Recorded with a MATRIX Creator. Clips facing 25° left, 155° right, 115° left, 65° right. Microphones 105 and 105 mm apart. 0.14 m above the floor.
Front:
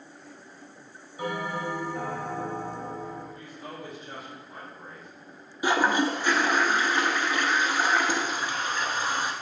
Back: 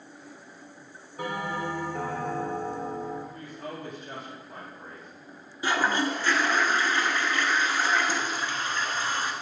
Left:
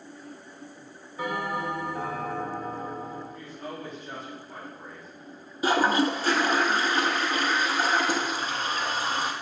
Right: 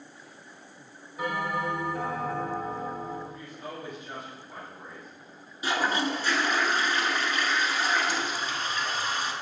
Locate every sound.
1.2 s a bell: 150° right, 3 m
3.3 s a woman speaking: 145° right, 2.5 m
5.6 s a toilet flushing: 90° left, 0.8 m